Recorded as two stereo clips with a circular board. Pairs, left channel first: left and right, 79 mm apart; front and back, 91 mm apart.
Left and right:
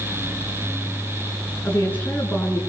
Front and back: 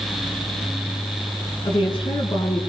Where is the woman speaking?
25° left, 9 m.